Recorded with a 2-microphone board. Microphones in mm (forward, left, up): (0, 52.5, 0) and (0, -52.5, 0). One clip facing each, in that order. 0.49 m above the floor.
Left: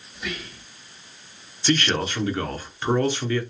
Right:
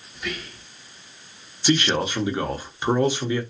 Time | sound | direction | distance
0.1 | whispering | centre (ahead or behind) | 0.7 m
1.6 | a man speaking | 15° right (ahead or behind) | 0.7 m